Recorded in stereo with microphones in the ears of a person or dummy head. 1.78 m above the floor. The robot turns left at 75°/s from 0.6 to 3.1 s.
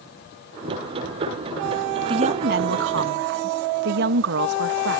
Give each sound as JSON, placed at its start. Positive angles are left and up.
{"t": 2.1, "sound": "a woman speaking", "azimuth_deg": -30}